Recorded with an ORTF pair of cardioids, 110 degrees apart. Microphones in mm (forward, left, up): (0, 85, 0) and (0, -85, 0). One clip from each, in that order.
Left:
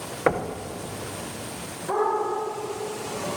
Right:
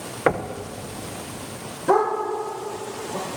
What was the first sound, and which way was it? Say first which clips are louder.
Knocking: right 2 dB; 5° right.